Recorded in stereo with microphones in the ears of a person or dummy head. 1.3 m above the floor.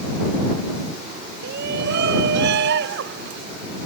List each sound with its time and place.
1.4 s a shout: 60° right (ahead or behind); by 3.4 s 70° right (ahead or behind)